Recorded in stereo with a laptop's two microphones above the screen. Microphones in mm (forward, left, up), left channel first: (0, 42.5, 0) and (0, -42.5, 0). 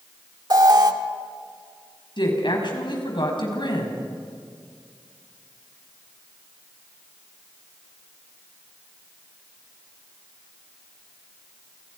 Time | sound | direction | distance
0.5 | an alarm | 50° right (ahead or behind) | 1.4 m
2.2 | a woman speaking | 65° left (ahead or behind) | 6 m